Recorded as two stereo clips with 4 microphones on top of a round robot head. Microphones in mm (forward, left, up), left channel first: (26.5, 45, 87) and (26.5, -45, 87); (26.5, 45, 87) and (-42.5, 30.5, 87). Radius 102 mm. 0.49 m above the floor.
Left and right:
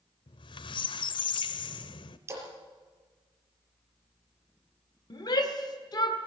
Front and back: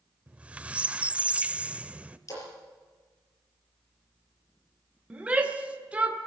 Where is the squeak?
120° left, 0.8 m.